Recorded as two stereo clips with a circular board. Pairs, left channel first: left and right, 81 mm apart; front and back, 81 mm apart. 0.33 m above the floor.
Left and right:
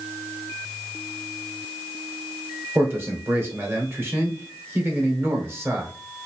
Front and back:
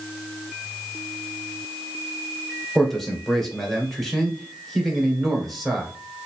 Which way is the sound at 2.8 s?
85° right.